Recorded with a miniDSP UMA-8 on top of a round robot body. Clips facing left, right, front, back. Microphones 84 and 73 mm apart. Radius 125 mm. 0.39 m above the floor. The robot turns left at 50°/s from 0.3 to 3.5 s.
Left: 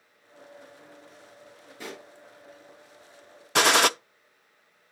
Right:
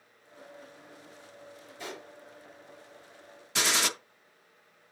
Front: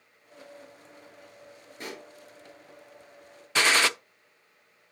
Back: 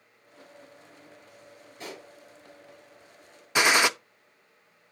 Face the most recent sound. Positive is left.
turn(degrees=105)